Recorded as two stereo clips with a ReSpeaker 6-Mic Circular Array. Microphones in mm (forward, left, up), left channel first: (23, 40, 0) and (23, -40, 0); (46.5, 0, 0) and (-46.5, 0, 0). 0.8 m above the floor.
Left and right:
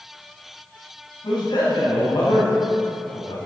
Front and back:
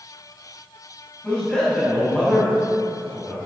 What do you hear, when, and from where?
1.2 s a man speaking: 80° left, 5.5 m